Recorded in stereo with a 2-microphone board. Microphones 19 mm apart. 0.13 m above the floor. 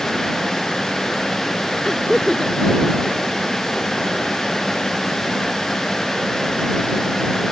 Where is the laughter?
25° left (ahead or behind); by 4.6 s 60° left (ahead or behind).